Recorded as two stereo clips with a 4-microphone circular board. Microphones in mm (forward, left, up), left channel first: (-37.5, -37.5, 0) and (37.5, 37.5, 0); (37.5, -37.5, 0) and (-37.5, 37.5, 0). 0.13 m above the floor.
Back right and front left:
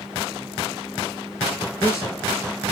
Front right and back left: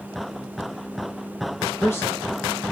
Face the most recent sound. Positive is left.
turn(degrees=-100)